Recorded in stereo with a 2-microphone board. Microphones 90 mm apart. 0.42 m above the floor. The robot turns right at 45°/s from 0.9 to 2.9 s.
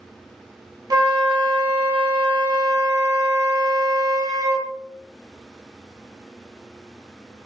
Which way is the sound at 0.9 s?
130° right.